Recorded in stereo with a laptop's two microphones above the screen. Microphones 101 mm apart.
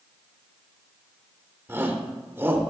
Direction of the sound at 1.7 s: 25° right (ahead or behind).